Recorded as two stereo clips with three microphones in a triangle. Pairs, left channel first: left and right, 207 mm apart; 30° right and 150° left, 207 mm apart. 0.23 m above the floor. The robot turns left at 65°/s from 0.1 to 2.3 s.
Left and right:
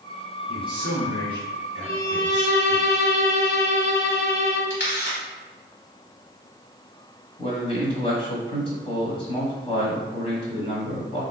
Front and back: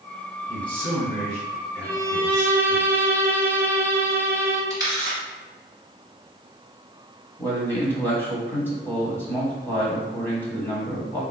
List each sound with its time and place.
0.5 s a man speaking: 135° right, 1.9 m; by 2.8 s 105° left, 1.9 m
1.8 s a violin: 70° left, 1.6 m; by 4.6 s 40° left, 1.6 m
4.7 s a camera shutter: 80° left, 1.8 m
7.4 s a man speaking: 45° left, 1.3 m